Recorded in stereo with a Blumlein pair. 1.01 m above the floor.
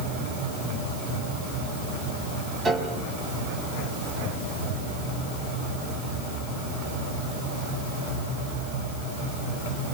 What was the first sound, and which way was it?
A piano, 15° right.